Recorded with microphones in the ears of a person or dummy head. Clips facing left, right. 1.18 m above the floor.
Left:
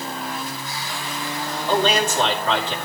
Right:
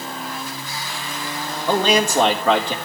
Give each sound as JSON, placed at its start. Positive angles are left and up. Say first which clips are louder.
{"t": 1.7, "sound": "a man speaking", "louder": "right 2 dB", "side_deg": -55, "distance_m": 3.5}